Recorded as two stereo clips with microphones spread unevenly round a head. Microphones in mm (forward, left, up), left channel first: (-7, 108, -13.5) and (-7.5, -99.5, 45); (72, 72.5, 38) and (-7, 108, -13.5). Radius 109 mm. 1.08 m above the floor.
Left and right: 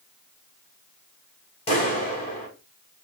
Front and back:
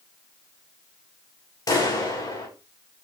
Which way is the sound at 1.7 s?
25° left.